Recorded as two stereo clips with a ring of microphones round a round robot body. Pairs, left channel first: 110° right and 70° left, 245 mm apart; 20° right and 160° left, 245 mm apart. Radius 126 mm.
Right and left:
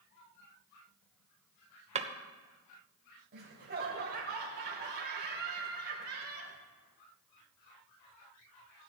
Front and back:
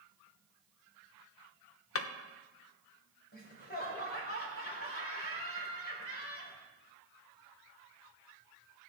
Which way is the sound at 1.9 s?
5° left.